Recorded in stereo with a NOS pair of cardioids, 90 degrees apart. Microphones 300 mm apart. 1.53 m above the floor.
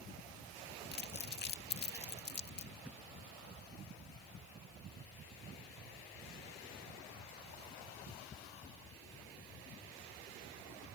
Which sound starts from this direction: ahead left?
Crumpling, at 0.9 s.